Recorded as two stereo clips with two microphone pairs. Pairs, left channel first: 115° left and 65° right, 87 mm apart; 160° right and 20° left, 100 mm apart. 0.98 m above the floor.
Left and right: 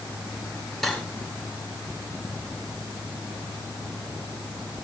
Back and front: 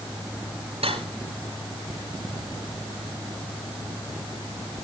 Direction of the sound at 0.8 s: 25° left.